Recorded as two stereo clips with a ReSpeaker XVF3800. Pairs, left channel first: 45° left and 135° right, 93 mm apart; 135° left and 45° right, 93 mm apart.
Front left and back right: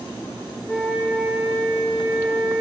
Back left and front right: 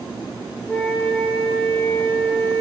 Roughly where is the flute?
Behind left.